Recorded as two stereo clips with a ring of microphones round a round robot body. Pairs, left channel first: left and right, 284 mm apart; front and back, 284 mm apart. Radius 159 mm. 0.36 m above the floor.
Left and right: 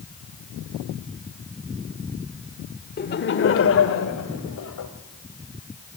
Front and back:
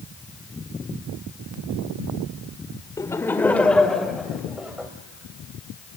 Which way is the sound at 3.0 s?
70° left.